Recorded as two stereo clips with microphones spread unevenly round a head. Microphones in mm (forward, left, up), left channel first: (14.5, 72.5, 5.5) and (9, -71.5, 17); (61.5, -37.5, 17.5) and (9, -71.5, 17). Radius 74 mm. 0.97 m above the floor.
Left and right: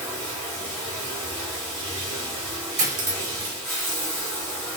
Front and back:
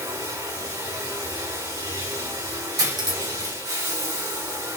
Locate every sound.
0.0 s running water: 155° right, 2.5 m
2.8 s cutlery clinking: 130° right, 1.4 m